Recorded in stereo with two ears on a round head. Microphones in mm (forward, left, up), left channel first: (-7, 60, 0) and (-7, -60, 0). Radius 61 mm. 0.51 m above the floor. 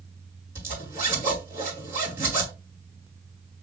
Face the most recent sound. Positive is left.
turn(degrees=-20)  # may be behind; listen again after turning